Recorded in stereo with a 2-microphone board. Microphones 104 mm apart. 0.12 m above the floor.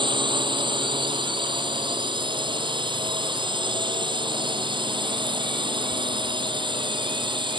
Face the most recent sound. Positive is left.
turn(degrees=-50)  # may be behind; listen again after turning